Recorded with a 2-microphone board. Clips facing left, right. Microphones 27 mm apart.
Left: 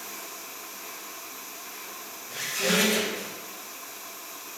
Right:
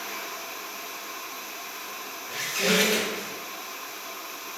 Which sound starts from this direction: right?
A squeak, at 2.3 s.